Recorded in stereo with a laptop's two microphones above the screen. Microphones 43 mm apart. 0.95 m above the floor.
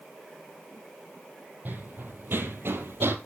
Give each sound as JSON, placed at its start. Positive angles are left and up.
{"t": 1.6, "sound": "running footsteps", "side_deg": -50, "distance_m": 2.0}